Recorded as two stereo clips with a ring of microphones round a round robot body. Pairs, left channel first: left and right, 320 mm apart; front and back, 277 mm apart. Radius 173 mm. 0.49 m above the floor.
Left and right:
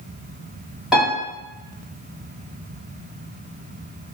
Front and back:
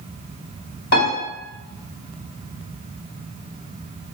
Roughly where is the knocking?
I don't hear knocking.